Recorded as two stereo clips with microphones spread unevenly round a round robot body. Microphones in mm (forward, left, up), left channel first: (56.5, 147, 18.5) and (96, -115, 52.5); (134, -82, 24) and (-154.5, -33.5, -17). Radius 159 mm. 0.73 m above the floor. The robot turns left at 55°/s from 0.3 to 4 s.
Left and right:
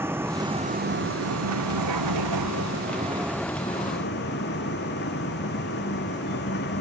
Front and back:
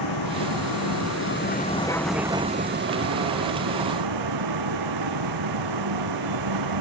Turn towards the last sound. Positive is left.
turn(degrees=155)